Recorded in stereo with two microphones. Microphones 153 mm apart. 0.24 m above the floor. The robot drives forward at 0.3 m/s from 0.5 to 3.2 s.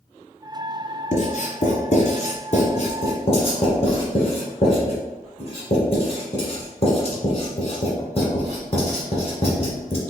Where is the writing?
55° left (ahead or behind), 1.3 m; by 10.0 s 45° left (ahead or behind), 1.5 m.